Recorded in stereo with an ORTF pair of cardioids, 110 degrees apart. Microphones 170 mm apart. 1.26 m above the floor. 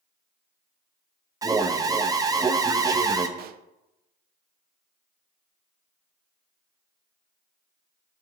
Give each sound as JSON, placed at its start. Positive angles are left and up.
{"t": 1.4, "sound": "an alarm", "azimuth_deg": -20, "distance_m": 0.9}
{"t": 3.4, "sound": "a pop", "azimuth_deg": -65, "distance_m": 0.5}